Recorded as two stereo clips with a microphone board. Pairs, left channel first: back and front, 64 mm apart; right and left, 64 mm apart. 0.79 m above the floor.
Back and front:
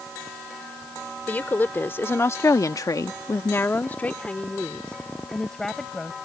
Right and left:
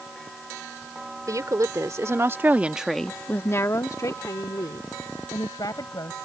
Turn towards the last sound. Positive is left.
turn(degrees=-95)